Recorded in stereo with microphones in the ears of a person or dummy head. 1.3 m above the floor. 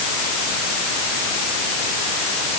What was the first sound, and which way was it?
Only background noise.